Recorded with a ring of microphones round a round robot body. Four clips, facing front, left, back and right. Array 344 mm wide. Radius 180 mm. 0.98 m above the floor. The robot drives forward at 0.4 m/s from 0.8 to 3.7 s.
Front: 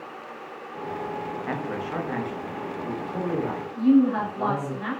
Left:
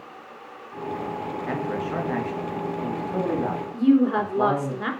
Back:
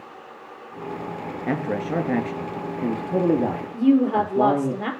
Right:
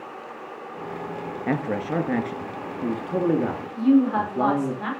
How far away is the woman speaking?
About 3.5 m.